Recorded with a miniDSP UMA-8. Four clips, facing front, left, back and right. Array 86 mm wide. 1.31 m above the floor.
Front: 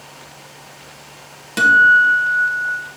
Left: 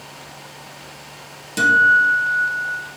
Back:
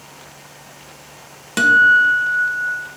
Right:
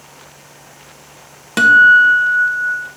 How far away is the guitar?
About 0.8 m.